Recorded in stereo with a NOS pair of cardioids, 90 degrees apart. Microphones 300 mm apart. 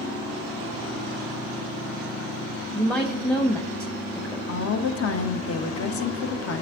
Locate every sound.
2.8 s a woman speaking: 5° left, 1.0 m
4.5 s a woman speaking: 50° left, 1.1 m